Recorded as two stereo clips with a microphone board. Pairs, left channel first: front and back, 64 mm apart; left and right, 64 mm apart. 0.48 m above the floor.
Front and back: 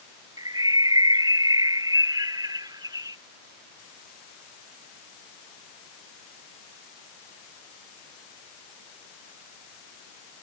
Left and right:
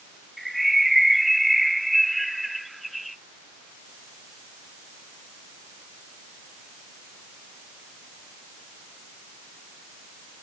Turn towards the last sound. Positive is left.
turn(degrees=180)